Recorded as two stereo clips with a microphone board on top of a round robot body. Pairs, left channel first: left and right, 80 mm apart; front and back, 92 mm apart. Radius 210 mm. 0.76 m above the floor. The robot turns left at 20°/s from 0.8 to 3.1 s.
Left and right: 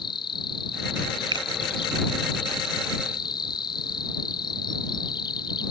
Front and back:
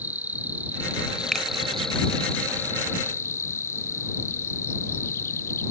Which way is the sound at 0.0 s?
110° left.